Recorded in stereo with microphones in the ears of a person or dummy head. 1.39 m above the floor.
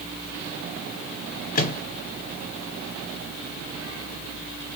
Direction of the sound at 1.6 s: 45° left (ahead or behind).